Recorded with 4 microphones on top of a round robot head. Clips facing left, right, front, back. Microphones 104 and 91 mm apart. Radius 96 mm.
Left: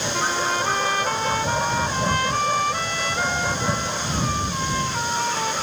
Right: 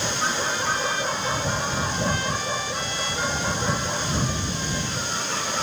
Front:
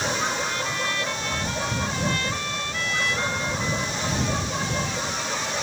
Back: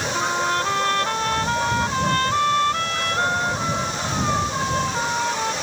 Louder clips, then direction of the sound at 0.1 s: Left 6 dB, back 5 dB; 140° left.